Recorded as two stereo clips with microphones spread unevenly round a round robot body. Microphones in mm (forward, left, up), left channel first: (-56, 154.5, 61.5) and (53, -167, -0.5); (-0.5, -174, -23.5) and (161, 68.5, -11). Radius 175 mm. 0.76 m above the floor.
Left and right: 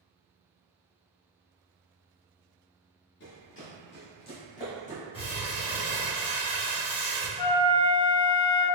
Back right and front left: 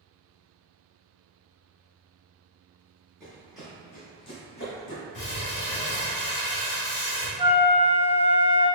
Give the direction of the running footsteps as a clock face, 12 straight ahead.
8 o'clock.